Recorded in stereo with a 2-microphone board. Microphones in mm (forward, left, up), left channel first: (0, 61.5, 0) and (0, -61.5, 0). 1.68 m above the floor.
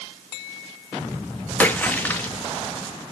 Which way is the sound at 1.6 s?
15° left (ahead or behind).